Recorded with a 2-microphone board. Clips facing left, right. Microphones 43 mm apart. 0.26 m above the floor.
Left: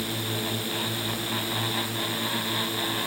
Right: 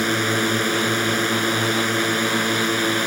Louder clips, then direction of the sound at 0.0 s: Right 10 dB; 70° right (ahead or behind).